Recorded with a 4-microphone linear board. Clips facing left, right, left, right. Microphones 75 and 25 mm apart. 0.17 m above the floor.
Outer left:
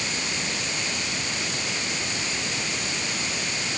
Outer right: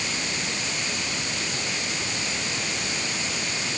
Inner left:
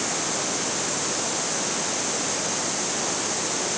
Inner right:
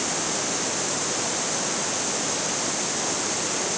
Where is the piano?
No piano in this recording.